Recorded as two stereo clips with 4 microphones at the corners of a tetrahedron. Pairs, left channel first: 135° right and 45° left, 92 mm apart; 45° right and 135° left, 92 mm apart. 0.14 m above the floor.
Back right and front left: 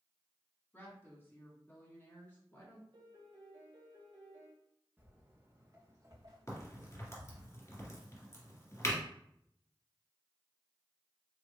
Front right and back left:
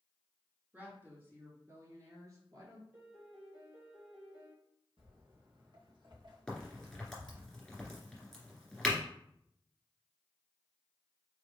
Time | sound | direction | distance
0.7 | a woman speaking | straight behind | 1.8 m
2.9 | a piano | 70° left | 2.5 m
5.0 | footsteps | 115° left | 2.5 m
6.5 | a crack | 125° right | 1.9 m